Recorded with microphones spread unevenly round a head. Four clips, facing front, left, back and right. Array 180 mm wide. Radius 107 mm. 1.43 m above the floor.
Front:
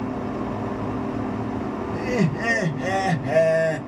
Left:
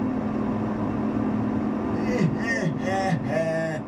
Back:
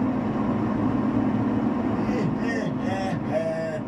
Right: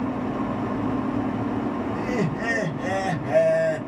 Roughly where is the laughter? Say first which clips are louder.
Left 1 dB, front 1 dB; ahead.